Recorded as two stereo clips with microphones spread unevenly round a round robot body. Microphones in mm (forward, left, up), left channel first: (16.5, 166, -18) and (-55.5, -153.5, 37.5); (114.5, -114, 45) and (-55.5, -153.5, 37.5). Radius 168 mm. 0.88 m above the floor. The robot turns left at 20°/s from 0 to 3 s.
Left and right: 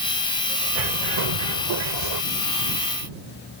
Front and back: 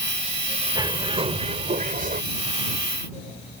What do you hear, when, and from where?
0.8 s a bird: 100° right; by 2.2 s 130° right